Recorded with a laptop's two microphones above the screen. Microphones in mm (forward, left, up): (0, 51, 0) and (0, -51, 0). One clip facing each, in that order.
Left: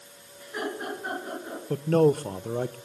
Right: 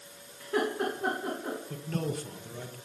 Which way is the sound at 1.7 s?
50° left (ahead or behind).